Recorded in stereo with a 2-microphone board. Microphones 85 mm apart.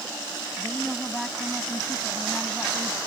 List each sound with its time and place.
0.6 s a woman speaking: centre (ahead or behind)